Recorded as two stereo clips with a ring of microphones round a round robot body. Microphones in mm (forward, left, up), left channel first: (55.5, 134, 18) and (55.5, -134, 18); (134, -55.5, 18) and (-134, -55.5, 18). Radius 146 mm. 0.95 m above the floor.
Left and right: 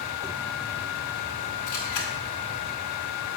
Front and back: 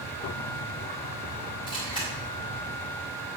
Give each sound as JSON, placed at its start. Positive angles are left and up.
{"t": 1.7, "sound": "a camera shutter", "azimuth_deg": 75, "distance_m": 2.0}